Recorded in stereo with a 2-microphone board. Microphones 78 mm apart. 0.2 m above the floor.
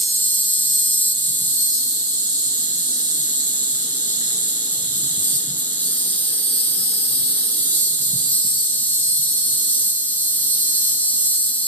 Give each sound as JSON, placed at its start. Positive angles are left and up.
{"t": 0.0, "sound": "an insect", "side_deg": 25, "distance_m": 0.7}